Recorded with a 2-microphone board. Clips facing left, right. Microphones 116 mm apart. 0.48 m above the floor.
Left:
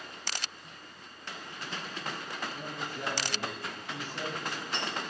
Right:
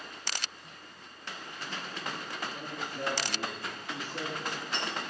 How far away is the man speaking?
About 8 m.